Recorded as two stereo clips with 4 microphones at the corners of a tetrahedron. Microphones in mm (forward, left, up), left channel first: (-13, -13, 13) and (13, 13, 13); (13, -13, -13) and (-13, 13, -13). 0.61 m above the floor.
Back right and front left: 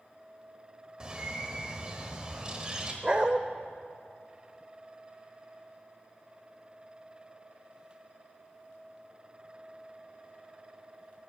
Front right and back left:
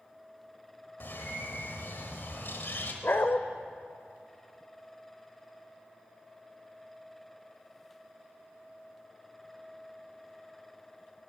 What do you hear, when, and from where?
1.0 s a bird: 25° right, 1.2 m
3.0 s a dog barking: 20° right, 0.6 m